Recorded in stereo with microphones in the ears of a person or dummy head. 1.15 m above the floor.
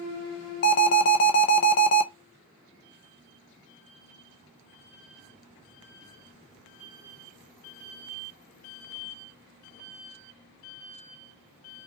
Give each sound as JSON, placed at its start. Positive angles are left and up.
{"t": 0.6, "sound": "an alarm", "side_deg": 45, "distance_m": 0.6}